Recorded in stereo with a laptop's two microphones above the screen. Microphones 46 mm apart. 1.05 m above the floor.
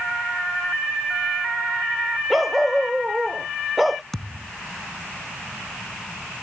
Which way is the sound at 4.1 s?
5° left (ahead or behind).